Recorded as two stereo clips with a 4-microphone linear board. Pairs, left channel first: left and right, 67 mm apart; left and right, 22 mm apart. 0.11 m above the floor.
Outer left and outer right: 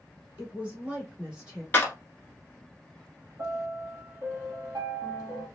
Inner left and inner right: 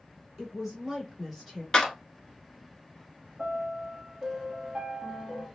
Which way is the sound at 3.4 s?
60° right (ahead or behind).